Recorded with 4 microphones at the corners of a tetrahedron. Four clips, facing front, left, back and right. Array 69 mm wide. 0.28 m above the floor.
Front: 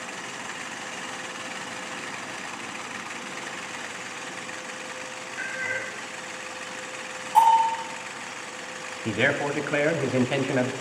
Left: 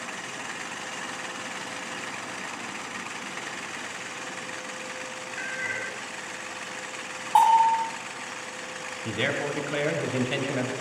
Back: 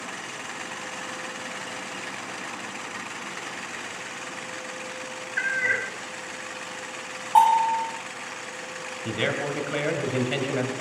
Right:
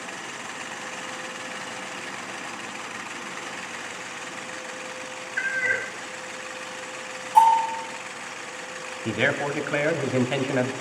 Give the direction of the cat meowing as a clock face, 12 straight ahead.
5 o'clock.